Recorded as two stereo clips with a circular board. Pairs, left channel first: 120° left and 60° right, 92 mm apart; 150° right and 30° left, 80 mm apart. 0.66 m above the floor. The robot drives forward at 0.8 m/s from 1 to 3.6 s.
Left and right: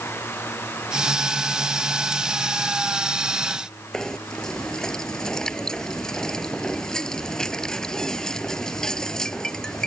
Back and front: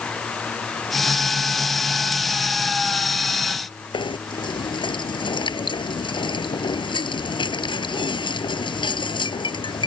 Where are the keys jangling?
I don't hear keys jangling.